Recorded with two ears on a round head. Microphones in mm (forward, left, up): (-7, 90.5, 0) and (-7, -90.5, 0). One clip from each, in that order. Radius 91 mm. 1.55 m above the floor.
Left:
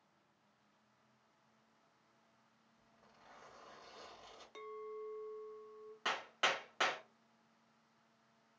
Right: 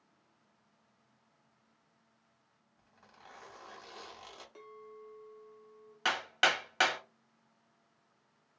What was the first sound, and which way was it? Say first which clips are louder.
A zipper: right 7 dB; 45° right (ahead or behind).